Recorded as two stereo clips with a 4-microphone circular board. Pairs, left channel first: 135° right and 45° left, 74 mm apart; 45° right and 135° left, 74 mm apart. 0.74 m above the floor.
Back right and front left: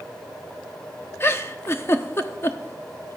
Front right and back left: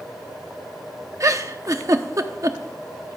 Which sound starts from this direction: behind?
A giggle, at 1.2 s.